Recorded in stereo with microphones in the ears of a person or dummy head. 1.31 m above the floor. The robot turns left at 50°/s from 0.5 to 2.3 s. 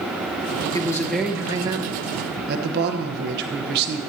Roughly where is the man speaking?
Ahead left.